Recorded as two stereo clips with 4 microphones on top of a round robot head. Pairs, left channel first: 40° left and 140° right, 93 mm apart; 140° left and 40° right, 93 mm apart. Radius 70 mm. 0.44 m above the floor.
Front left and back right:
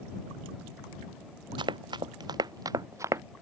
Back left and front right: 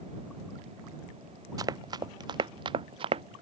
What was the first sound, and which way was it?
Running footsteps, 95° right.